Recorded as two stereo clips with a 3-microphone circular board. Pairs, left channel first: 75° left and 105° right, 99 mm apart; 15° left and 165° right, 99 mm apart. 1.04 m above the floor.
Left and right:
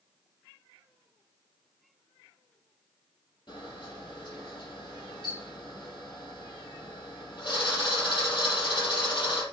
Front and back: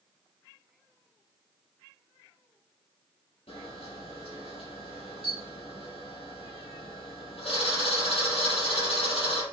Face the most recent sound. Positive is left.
turn(degrees=35)